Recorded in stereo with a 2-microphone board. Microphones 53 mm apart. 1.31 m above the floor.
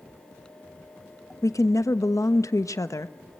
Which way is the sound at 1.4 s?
75° left (ahead or behind).